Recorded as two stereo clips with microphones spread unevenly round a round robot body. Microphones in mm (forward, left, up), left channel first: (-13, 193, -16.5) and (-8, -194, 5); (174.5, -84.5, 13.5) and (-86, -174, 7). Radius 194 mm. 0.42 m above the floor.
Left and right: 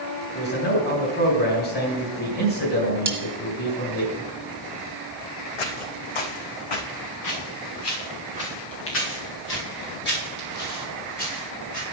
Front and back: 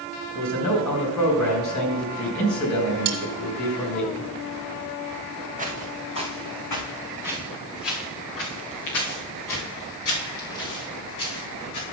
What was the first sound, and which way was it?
A man speaking, 30° left.